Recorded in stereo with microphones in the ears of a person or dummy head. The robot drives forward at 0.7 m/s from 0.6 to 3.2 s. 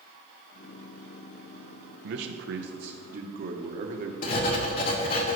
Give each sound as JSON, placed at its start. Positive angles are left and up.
{"t": 2.0, "sound": "a man speaking", "side_deg": -70, "distance_m": 0.9}
{"t": 4.2, "sound": "writing", "side_deg": 40, "distance_m": 1.2}